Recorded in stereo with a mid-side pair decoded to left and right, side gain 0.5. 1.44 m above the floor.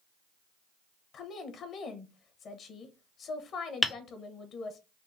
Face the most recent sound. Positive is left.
turn(degrees=15)